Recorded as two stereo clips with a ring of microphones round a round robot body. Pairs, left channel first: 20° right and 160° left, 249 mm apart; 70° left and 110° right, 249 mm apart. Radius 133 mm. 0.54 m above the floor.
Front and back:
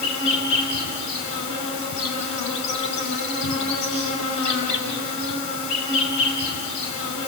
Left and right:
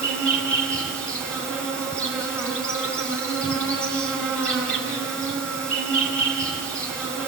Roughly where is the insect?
Ahead.